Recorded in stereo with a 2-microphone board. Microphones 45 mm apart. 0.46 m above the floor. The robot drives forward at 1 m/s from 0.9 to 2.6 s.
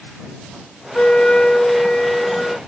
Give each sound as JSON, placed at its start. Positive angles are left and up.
{"t": 0.9, "sound": "a flute", "side_deg": 30}